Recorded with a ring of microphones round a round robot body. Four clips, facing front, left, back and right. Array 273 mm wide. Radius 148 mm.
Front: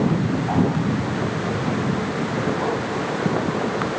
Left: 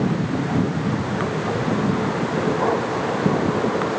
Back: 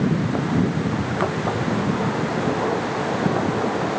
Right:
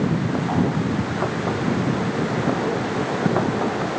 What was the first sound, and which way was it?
Only background noise.